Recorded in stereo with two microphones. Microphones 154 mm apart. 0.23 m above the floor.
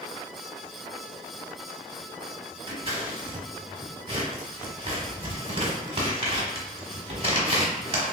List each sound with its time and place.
2.7 s scissors: 40° right (ahead or behind), 1.1 m